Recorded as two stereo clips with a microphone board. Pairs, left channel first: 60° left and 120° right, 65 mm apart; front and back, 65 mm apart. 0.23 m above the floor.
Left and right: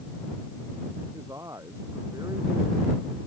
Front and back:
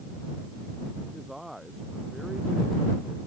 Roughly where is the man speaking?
Right.